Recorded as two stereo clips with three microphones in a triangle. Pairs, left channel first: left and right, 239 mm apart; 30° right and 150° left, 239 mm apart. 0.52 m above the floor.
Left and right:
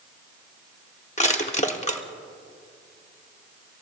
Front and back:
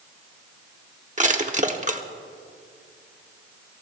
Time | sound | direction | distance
1.2 | crushing | 125° left | 1.1 m